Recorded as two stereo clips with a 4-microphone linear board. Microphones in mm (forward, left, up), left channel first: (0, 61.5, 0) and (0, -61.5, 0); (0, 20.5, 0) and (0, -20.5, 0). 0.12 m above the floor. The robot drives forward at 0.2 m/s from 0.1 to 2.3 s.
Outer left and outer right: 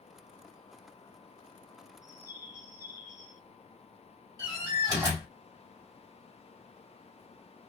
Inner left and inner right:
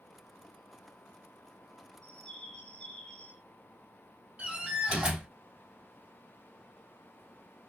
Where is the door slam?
25° right (ahead or behind), 1.9 m.